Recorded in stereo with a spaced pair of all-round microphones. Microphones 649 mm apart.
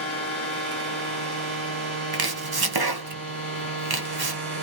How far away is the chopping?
About 0.8 m.